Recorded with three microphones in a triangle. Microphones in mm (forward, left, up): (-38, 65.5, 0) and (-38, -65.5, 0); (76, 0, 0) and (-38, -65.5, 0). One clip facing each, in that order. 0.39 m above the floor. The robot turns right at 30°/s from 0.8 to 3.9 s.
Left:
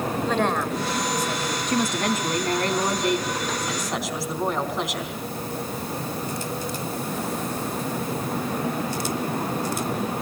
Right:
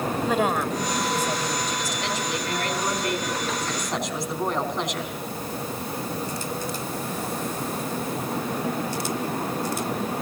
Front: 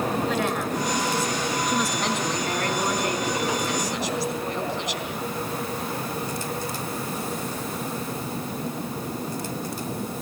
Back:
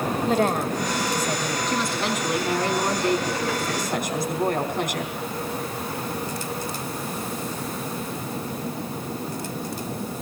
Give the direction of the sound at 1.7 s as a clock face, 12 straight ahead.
8 o'clock.